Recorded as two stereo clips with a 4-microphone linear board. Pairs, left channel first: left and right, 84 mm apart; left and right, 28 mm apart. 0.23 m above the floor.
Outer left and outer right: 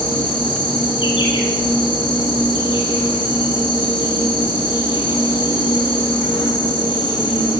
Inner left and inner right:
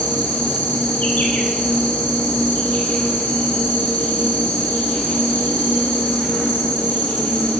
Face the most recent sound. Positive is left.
turn(degrees=75)  # may be behind; listen again after turning